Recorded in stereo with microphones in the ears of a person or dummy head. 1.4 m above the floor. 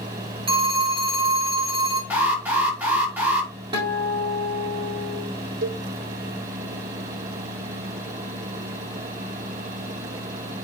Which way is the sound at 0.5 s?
30° right (ahead or behind).